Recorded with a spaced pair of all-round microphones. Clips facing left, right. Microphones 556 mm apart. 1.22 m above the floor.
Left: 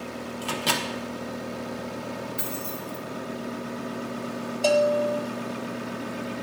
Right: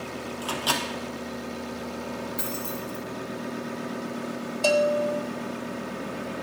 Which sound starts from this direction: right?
A bell, at 4.6 s.